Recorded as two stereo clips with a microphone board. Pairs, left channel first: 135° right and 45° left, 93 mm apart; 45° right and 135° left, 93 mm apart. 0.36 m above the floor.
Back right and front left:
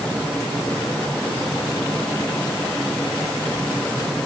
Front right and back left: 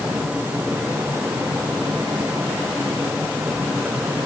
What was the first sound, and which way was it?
Only background noise.